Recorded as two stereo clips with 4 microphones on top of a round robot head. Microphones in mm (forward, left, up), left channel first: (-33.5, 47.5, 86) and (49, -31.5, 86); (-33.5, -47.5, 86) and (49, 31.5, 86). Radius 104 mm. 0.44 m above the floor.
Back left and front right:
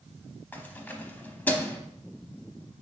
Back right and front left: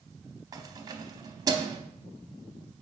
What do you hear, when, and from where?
0.5 s keys jangling: 70° left, 0.8 m